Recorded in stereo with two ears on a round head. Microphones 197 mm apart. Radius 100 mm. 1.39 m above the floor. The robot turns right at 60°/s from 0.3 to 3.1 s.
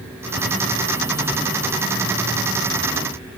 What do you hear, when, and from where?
Only background noise.